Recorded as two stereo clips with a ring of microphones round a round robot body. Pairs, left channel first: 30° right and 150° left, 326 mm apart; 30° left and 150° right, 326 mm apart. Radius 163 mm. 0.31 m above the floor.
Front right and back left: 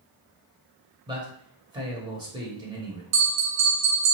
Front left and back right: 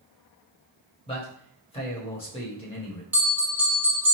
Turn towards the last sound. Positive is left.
turn(degrees=125)